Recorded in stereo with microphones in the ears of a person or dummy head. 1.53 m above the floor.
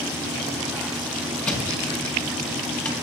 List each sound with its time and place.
1.4 s a thud: 10° left (ahead or behind), 5.5 m